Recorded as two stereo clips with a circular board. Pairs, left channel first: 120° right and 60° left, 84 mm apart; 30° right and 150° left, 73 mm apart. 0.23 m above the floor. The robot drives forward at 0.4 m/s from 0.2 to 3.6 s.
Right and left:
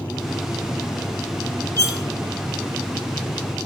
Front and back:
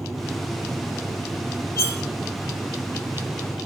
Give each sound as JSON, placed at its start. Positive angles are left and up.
{"t": 1.8, "sound": "cutlery clinking", "azimuth_deg": -70, "distance_m": 1.4}